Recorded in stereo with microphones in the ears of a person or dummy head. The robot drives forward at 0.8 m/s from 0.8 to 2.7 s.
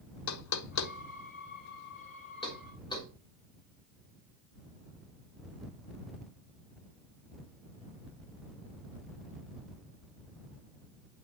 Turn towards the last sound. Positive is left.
turn(degrees=25)  # may be behind; listen again after turning